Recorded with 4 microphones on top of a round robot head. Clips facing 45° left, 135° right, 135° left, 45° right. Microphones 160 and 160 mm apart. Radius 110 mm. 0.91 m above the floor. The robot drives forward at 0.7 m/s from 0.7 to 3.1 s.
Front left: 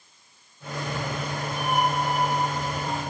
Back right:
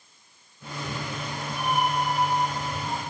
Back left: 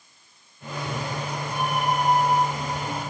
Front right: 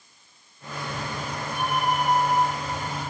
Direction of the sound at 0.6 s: 170° right.